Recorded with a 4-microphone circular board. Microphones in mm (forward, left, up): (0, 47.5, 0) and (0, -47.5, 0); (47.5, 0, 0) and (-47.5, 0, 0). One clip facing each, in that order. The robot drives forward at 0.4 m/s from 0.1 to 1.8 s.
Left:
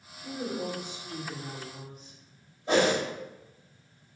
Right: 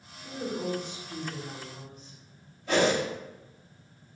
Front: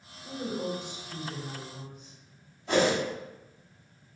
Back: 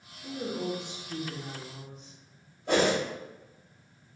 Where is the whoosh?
150° left, 1.4 m.